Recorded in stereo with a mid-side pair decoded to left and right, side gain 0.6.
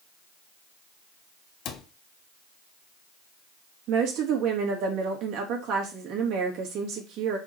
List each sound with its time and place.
1.6 s a cupboard door: 60° left, 1.3 m
3.9 s a woman speaking: 65° right, 2.5 m